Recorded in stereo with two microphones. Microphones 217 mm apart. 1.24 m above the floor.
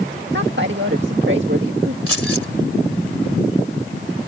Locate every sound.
0.3 s a woman speaking: 60° right (ahead or behind)
2.1 s keys jangling: 80° right